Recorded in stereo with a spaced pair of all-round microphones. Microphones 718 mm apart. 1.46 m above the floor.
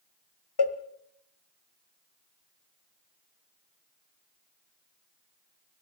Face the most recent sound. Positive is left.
turn(degrees=35)  # may be behind; listen again after turning